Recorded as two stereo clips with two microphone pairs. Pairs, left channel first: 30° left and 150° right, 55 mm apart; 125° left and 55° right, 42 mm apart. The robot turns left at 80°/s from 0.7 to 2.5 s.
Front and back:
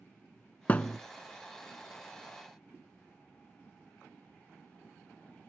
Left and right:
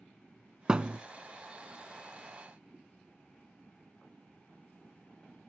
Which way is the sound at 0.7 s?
Straight ahead.